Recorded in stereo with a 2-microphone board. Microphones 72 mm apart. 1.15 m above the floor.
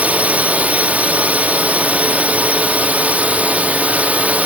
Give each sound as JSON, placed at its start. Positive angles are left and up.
{"t": 0.0, "sound": "a drone", "side_deg": -20}